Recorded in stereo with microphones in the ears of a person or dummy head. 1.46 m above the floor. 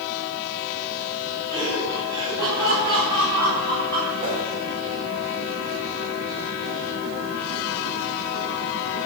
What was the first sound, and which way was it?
Laughter, 25° right (ahead or behind).